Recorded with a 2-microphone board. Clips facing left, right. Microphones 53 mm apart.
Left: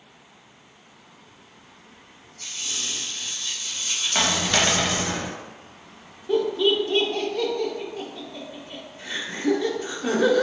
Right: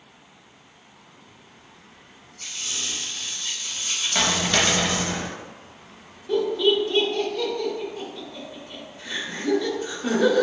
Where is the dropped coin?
10° left (ahead or behind), 0.7 m.